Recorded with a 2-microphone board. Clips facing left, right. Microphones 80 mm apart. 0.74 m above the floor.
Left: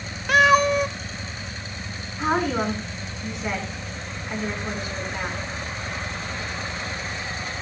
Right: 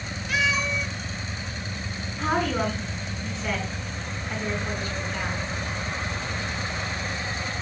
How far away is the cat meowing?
About 0.7 m.